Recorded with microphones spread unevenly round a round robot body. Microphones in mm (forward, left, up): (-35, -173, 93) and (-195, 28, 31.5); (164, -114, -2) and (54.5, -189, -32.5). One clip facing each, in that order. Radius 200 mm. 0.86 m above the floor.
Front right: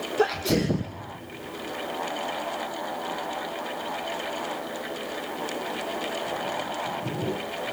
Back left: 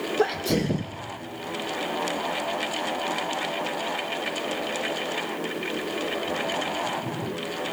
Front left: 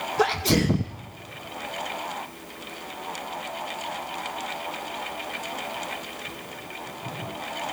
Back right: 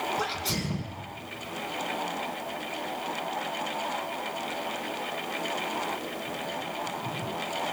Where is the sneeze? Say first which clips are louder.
Front right 1 dB, front left 10 dB; 50° left, 0.5 m.